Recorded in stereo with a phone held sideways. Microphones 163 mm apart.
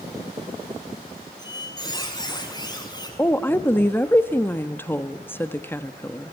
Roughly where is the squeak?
Left.